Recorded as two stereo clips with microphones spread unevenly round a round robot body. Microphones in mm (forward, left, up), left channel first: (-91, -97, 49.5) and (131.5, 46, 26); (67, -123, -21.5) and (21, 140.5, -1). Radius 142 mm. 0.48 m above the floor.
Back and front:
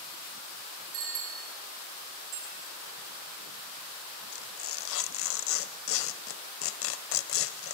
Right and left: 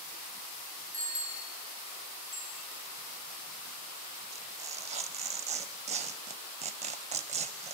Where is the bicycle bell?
35° left, 4.5 m.